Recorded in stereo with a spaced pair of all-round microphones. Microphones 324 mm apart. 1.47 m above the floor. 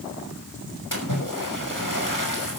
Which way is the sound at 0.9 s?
65° left (ahead or behind).